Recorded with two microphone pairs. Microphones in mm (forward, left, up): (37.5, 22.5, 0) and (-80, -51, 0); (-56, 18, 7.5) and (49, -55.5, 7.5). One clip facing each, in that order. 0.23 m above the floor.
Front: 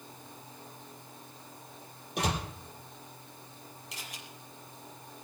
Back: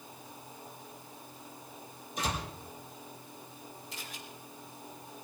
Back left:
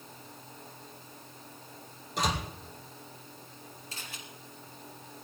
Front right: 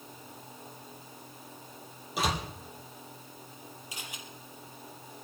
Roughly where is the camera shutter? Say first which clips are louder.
Back 1 dB, front right 1 dB; ahead left.